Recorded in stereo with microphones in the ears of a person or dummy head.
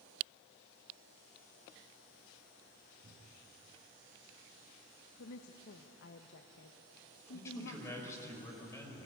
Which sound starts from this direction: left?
A woman speaking, at 5.2 s.